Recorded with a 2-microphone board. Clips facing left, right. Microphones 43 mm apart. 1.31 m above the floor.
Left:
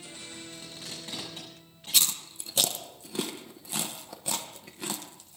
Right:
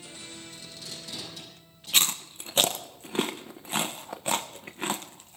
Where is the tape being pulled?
35° left (ahead or behind), 7.5 m.